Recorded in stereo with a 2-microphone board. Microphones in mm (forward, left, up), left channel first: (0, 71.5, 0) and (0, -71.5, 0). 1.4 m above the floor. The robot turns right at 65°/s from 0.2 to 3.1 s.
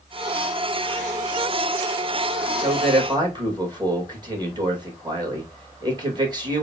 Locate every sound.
2.6 s a man speaking: 65° right, 2 m; by 6.7 s 30° right, 2 m